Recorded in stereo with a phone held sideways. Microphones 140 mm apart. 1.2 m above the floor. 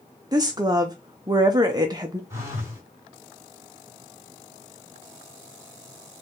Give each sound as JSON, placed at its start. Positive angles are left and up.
{"t": 0.3, "sound": "a woman speaking", "side_deg": -30, "distance_m": 0.5}
{"t": 2.3, "sound": "a phone buzzing", "side_deg": -20, "distance_m": 1.3}